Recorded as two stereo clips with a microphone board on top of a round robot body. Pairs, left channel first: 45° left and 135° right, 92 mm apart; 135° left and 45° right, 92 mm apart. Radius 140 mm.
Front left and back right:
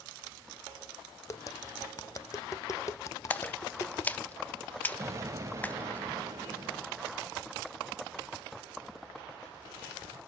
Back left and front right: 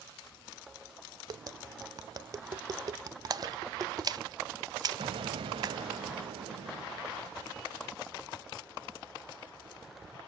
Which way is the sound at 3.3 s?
20° right.